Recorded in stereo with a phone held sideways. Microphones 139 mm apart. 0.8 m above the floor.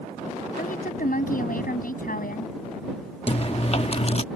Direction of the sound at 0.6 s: 75° left (ahead or behind).